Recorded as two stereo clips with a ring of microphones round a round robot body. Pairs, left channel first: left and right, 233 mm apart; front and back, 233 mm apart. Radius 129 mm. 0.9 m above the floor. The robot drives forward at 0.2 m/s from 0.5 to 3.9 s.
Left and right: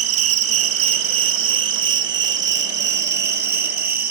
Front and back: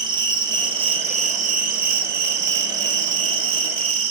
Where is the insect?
105° right, 0.8 m; by 4.1 s 140° right, 1.2 m.